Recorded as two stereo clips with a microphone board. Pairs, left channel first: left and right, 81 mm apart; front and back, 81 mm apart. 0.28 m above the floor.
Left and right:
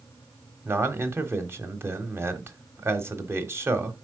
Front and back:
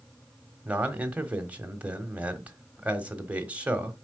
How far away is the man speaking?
About 1.3 m.